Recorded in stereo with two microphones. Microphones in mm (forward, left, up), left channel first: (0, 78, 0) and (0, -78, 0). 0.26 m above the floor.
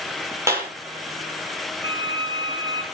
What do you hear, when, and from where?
0.5 s a clap: 15° right (ahead or behind), 7 m
1.8 s a violin: 30° right (ahead or behind), 2.5 m